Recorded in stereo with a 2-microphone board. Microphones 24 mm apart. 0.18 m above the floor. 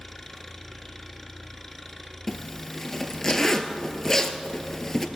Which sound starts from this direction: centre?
An engine running, at 0.0 s.